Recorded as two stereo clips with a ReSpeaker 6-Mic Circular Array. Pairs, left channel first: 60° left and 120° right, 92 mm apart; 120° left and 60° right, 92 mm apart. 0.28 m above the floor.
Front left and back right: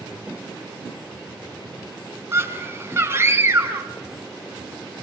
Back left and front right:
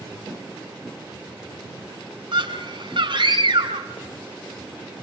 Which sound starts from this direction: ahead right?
A scream, at 2.3 s.